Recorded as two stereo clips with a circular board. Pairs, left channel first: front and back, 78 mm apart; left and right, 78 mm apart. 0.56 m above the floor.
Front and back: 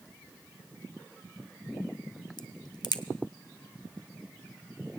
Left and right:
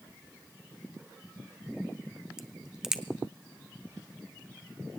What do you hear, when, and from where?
2.4 s a crack: 10° right, 0.7 m